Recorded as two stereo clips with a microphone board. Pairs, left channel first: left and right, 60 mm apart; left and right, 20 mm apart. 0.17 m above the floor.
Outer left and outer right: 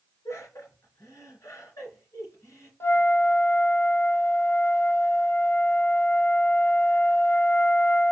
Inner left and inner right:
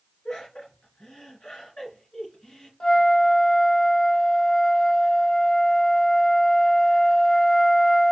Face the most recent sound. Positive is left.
turn(degrees=45)  # may be behind; listen again after turning